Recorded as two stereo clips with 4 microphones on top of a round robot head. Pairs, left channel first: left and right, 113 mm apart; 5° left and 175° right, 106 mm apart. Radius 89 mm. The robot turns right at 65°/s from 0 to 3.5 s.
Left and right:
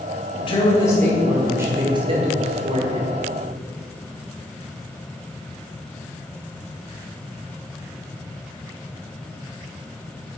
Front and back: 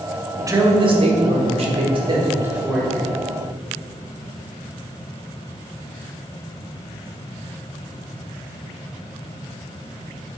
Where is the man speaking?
120° left, 1.6 m; by 3.1 s 65° right, 1.6 m.